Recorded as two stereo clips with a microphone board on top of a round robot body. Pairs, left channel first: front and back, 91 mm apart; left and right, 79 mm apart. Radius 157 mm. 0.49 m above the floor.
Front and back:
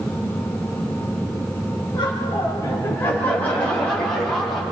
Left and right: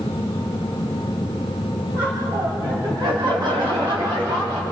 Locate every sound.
1.9 s laughter: 40° right, 3.5 m; by 4.6 s 85° right, 5.5 m